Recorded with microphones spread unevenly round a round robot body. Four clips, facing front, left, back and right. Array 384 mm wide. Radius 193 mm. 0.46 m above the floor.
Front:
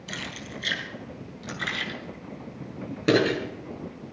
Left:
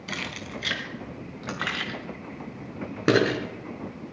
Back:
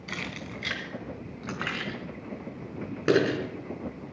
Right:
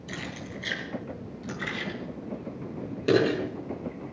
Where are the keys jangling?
105° left, 3 m; by 3.4 s 80° left, 4.5 m.